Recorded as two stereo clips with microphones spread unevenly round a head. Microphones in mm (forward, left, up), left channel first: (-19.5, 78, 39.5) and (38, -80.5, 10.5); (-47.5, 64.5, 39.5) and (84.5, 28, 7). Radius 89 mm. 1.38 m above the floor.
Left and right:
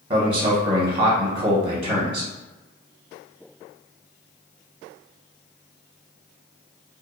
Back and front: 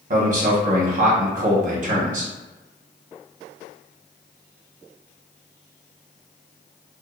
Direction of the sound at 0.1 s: 20° right.